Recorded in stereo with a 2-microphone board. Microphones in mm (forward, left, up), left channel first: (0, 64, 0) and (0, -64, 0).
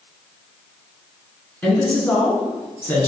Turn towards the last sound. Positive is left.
turn(degrees=15)  # may be behind; listen again after turning